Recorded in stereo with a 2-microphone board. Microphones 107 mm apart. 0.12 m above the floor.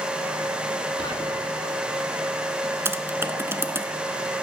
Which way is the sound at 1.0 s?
45° left (ahead or behind).